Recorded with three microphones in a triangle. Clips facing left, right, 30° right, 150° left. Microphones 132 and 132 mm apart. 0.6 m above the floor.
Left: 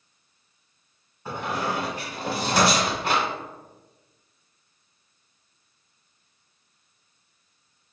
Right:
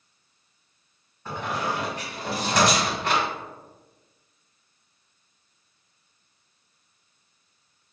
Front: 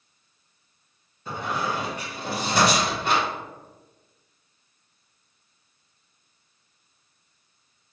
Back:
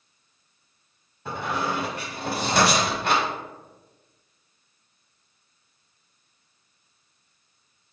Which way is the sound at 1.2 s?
170° left.